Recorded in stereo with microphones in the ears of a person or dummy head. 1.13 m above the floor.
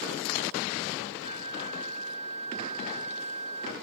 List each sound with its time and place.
1.2 s a flute: 35° right (ahead or behind)